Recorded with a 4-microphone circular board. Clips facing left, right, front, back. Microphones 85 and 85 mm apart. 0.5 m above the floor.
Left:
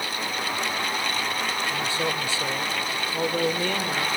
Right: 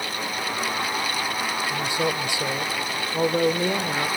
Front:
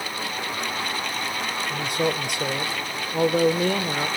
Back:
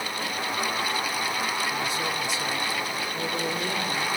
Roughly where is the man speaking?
Ahead.